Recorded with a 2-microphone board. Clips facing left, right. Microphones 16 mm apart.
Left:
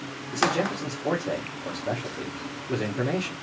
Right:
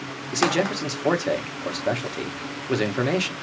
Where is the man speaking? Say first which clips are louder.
Right 3 dB; 65° right (ahead or behind), 1.1 m.